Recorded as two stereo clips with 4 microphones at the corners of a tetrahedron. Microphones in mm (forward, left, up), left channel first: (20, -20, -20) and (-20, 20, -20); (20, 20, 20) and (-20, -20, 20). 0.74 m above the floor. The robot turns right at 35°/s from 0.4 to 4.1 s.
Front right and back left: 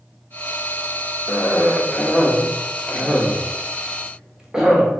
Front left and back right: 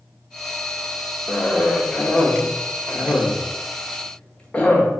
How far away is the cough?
About 0.8 m.